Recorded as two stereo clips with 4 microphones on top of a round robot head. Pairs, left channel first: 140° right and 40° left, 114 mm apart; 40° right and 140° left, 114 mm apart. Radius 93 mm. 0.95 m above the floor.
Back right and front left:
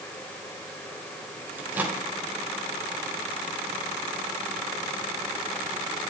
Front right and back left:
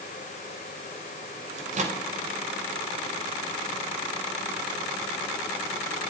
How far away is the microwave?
About 2.5 m.